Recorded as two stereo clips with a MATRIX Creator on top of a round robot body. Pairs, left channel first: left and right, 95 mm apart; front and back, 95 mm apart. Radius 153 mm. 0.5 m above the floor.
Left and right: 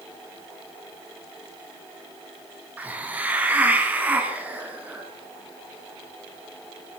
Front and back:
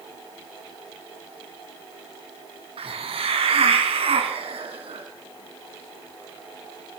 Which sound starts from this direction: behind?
A hiss, at 2.8 s.